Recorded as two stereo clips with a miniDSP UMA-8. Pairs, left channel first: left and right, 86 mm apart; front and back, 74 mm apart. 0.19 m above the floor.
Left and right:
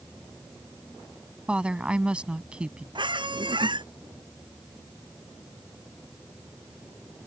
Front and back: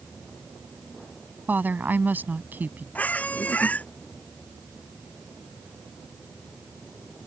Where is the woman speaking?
155° right.